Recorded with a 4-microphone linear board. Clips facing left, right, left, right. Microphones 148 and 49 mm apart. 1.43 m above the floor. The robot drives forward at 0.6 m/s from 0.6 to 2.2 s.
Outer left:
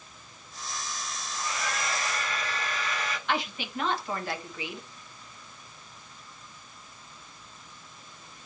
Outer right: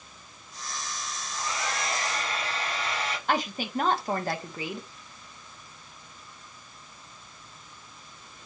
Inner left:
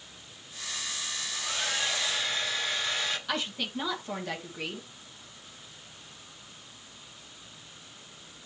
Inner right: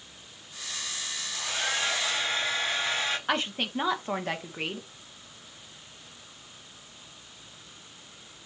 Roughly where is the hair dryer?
Right.